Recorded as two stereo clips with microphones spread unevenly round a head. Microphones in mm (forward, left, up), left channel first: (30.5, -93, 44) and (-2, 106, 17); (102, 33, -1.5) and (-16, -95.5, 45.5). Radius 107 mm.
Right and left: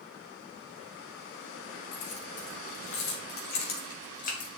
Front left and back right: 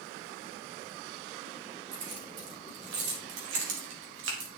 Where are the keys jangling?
120° right, 4 m; by 4.5 s 135° right, 2 m.